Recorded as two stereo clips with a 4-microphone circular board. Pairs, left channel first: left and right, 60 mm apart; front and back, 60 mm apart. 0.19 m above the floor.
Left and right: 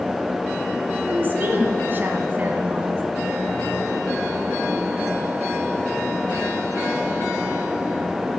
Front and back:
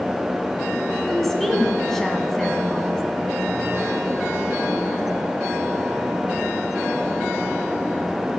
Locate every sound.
1.1 s a woman speaking: 80° right, 1.2 m